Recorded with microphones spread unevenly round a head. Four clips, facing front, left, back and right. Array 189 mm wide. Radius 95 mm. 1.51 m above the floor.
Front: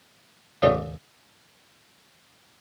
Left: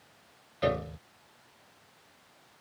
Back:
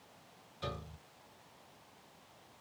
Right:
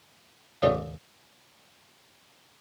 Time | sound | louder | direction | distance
0.6 | a piano | right 5 dB, front 23 dB | 20° right | ?